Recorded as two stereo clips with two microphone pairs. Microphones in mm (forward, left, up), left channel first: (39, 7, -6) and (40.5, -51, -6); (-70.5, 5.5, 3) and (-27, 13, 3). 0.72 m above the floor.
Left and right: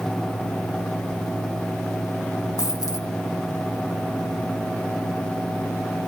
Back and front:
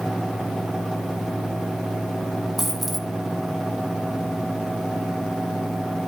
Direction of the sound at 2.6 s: 105° left.